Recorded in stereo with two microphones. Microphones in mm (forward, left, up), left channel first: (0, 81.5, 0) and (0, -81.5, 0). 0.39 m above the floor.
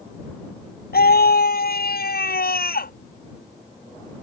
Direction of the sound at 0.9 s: 70° left (ahead or behind).